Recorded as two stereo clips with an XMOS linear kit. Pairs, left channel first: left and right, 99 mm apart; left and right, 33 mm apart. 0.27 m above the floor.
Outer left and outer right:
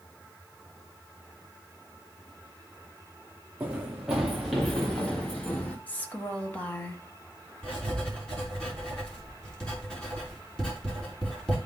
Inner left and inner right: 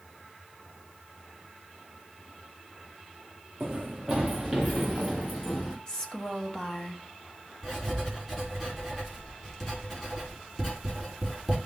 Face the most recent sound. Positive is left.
turn(degrees=10)  # may be behind; listen again after turning